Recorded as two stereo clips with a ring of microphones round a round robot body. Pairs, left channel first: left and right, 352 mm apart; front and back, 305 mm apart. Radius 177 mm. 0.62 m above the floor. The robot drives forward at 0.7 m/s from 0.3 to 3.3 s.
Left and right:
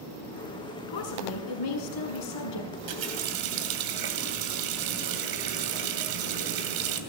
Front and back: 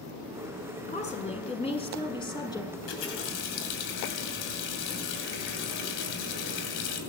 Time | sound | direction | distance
0.9 | a woman speaking | 65° left | 7 m
2.7 | a running tap | 50° right | 2.5 m